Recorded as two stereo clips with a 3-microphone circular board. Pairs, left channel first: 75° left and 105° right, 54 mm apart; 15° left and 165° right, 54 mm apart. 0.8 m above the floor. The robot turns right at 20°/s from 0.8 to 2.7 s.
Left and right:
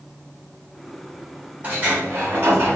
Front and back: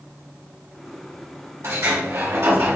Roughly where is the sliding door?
Behind.